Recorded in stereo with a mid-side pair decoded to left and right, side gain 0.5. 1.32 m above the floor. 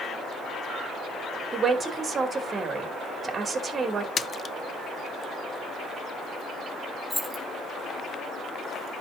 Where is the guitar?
No guitar in this recording.